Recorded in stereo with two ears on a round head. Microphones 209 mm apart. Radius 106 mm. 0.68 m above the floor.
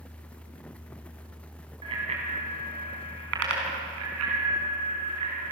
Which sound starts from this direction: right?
A bicycle bell, at 1.8 s.